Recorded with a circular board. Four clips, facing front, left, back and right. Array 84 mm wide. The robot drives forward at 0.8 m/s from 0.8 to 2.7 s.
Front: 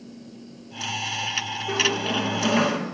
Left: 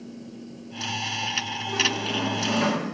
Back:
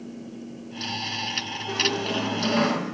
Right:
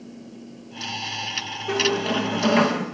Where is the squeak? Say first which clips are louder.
Right 6 dB, front 1 dB; 75° right, 9 m; by 2.9 s 80° right, 9 m.